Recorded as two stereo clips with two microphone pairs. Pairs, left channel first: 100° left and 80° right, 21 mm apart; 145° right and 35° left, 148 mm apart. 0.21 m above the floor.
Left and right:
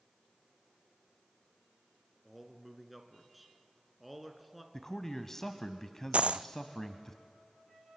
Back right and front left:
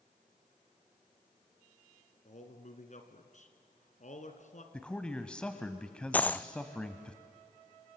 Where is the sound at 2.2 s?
165° right, 2 m.